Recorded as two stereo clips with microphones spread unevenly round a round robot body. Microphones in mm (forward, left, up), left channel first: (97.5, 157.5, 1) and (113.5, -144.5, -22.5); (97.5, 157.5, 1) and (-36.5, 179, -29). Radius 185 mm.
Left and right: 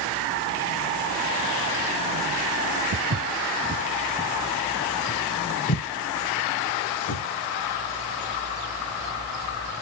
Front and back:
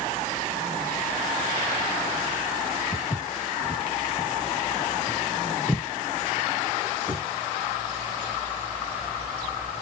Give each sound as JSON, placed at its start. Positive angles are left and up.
{"t": 2.9, "sound": "footsteps", "azimuth_deg": -60, "distance_m": 1.1}